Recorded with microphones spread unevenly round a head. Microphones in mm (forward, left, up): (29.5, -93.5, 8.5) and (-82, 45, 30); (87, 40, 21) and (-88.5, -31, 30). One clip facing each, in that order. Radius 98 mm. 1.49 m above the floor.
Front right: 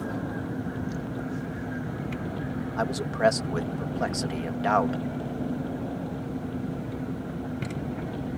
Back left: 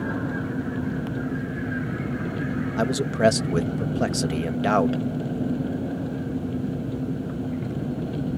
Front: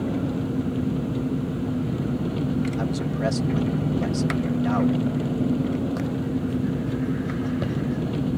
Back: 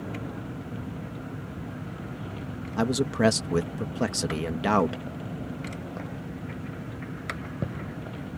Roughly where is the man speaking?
Behind.